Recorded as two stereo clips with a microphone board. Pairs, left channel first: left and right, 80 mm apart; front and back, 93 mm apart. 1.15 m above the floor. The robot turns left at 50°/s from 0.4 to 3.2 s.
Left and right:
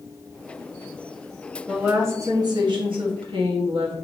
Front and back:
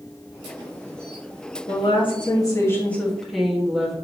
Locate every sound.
1.7 s a woman speaking: 15° right, 1.6 m; by 3.9 s 90° right, 1.6 m